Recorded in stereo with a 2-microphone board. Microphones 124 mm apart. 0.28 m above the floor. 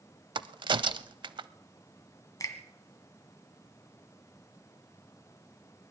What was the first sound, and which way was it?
A crack, 40° right (ahead or behind).